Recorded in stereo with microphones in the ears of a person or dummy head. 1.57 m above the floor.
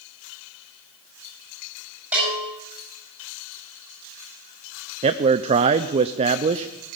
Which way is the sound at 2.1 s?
10° right (ahead or behind).